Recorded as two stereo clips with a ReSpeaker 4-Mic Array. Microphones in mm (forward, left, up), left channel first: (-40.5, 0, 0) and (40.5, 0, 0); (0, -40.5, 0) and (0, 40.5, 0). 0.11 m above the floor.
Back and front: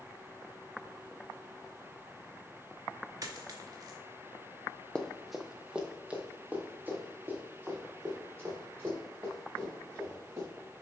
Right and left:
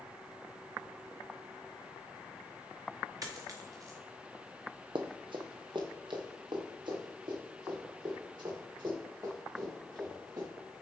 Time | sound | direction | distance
3.2 | a dropped coin | 45° left | 1.2 m
5.0 | running footsteps | 100° left | 0.9 m